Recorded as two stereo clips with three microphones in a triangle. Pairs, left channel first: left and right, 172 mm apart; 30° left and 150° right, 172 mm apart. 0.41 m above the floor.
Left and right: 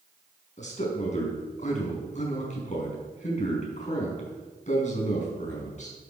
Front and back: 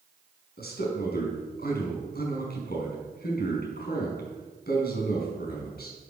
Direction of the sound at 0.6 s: 45° left.